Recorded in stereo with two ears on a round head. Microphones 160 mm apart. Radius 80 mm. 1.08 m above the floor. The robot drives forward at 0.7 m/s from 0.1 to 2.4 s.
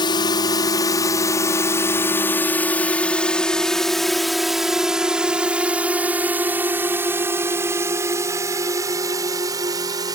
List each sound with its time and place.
0.0 s a drone: 25° left (ahead or behind); by 10.2 s 20° right (ahead or behind)